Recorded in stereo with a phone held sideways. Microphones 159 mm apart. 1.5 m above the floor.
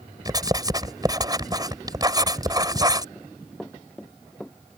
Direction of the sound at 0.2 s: 25° right (ahead or behind).